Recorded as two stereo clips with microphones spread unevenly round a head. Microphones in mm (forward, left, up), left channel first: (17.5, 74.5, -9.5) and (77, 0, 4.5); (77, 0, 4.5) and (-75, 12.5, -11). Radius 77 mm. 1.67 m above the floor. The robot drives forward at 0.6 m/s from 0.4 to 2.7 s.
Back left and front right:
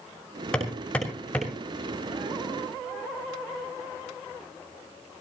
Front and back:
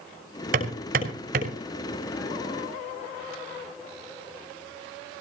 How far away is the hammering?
About 5.5 m.